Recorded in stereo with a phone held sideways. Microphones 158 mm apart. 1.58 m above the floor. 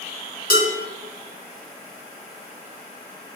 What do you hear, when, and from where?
0.5 s dishes clattering: 65° left (ahead or behind), 1.7 m